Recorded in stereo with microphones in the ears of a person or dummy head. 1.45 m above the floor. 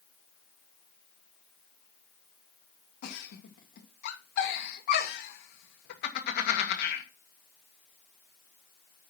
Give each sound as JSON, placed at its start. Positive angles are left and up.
{"t": 3.0, "sound": "a giggle", "side_deg": 40, "distance_m": 1.7}